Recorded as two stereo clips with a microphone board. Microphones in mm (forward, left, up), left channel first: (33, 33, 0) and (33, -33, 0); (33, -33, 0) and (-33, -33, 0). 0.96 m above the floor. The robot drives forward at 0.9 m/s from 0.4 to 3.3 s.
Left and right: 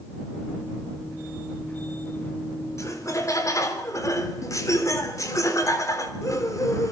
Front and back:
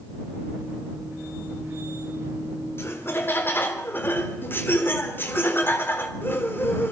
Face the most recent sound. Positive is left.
turn(degrees=60)